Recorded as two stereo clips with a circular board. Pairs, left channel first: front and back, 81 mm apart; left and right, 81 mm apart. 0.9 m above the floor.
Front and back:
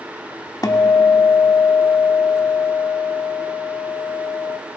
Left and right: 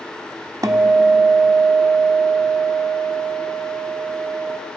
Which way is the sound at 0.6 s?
45° right.